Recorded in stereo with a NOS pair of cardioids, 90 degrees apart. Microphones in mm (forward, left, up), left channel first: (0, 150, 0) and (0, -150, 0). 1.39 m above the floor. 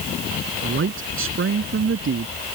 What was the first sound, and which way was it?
A man speaking, 40° right.